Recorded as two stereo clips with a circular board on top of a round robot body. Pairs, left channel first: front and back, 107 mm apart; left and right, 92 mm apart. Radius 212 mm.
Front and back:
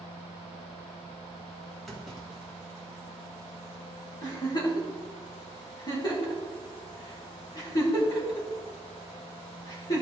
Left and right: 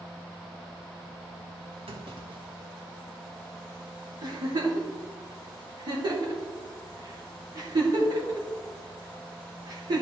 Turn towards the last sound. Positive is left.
turn(degrees=-50)